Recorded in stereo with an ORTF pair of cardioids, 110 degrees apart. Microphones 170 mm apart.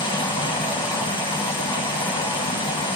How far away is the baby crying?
No baby crying in this recording.